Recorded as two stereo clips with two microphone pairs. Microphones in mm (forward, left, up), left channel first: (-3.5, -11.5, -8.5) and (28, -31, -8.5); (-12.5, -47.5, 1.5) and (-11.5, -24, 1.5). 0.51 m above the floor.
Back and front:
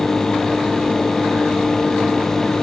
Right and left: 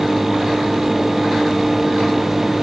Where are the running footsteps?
No running footsteps in this recording.